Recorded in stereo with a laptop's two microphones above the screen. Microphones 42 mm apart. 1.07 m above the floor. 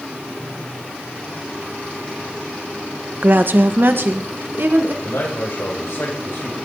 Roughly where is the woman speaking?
Right.